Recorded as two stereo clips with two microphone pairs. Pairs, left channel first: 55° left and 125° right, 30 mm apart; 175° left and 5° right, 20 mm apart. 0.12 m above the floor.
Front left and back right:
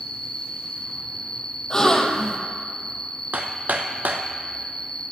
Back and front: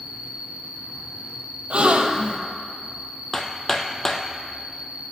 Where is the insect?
10° right, 1.1 m.